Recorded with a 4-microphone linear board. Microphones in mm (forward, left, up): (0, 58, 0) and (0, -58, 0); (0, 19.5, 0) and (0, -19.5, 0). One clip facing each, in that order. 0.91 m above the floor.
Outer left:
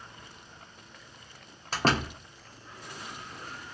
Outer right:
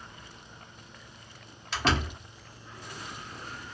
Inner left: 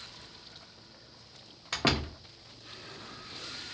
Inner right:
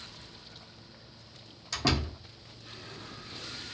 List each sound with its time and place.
1.7 s a door slam: 40° left (ahead or behind), 0.5 m